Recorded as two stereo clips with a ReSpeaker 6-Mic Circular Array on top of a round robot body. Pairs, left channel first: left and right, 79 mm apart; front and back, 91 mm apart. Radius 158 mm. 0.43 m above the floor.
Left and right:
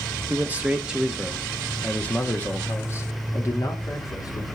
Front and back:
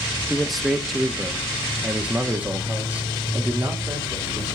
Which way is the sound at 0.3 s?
85° right.